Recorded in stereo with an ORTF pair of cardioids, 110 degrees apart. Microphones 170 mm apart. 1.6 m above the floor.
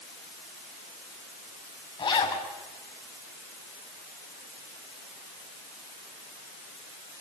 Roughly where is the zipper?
Ahead left.